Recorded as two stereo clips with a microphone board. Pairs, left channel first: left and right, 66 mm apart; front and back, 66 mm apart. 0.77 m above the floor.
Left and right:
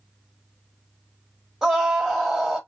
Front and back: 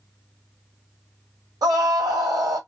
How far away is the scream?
About 1.1 m.